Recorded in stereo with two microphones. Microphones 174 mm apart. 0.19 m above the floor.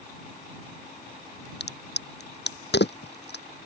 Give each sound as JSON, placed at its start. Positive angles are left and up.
{"t": 1.6, "sound": "a crack", "side_deg": 85}